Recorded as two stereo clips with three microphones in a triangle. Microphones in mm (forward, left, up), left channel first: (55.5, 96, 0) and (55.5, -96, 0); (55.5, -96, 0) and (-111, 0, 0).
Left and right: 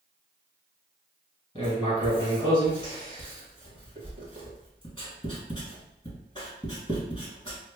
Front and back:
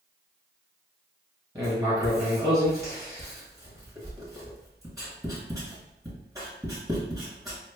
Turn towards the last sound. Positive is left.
turn(degrees=105)